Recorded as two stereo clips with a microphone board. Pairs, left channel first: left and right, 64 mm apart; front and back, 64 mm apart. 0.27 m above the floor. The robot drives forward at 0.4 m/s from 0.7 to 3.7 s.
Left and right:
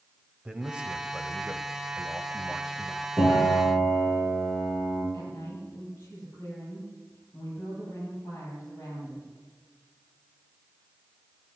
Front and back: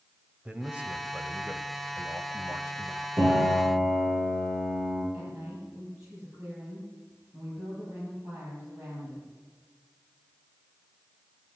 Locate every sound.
0.5 s a man speaking: 145° right, 1.1 m; by 3.1 s 170° right, 1.7 m
3.2 s a piano: 170° left, 6.5 m
5.1 s a woman speaking: 145° left, 8.5 m